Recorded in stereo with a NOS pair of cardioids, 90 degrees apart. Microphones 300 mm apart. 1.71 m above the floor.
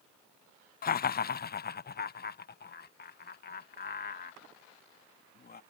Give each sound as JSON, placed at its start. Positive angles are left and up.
{"t": 0.8, "sound": "laughter", "azimuth_deg": 30}